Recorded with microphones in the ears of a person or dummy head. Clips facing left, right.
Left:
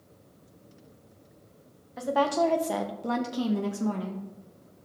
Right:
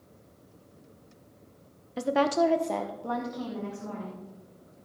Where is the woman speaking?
40° right (ahead or behind), 0.7 m; by 4.2 s 55° left (ahead or behind), 1.3 m.